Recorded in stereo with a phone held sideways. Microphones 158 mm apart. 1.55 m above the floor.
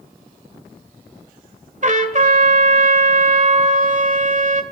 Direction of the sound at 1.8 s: 50° right (ahead or behind).